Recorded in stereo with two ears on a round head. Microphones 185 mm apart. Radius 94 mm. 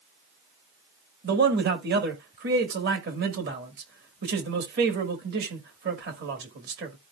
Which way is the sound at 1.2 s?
50° right (ahead or behind).